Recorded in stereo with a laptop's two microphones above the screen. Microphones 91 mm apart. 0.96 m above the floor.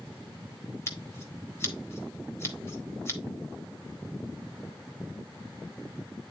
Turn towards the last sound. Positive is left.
turn(degrees=30)  # may be behind; listen again after turning